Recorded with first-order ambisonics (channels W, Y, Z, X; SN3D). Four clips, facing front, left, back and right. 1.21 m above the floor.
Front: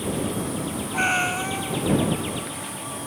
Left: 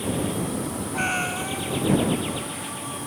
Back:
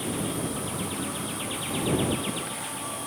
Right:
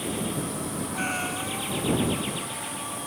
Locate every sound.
0.9 s a cat meowing: 15° left